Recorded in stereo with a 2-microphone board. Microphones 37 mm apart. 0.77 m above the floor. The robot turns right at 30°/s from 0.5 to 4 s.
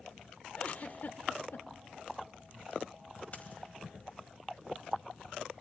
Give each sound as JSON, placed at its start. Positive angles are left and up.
{"t": 0.6, "sound": "a giggle", "side_deg": 35, "distance_m": 0.9}
{"t": 3.3, "sound": "a dropped coin", "side_deg": 40, "distance_m": 1.9}